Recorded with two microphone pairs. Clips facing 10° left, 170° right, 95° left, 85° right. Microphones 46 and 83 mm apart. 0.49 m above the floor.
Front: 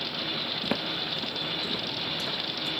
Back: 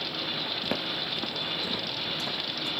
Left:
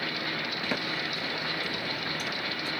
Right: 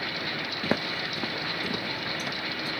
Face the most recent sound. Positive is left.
turn(degrees=-125)